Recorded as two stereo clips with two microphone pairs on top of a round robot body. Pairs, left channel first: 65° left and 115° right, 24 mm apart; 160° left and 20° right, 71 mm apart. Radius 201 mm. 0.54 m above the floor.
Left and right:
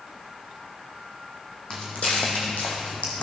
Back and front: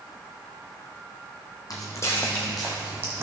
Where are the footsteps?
120° left, 1.4 m; by 3.2 s 35° left, 1.5 m.